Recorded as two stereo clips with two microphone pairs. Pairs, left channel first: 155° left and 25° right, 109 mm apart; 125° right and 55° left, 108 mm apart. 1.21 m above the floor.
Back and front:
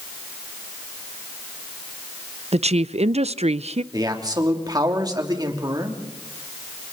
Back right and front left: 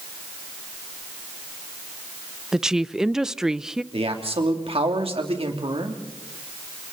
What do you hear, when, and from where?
2.5 s a woman speaking: 25° right, 0.5 m
3.9 s a man speaking: 30° left, 3 m